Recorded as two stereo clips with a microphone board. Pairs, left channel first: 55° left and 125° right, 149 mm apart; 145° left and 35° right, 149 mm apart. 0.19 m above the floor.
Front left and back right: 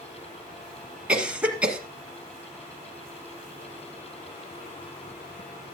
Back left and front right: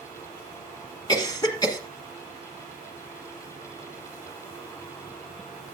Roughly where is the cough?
Behind.